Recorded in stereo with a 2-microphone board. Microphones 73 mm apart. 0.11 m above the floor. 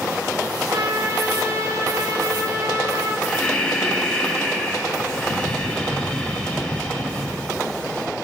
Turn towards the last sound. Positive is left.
turn(degrees=15)  # may be behind; listen again after turning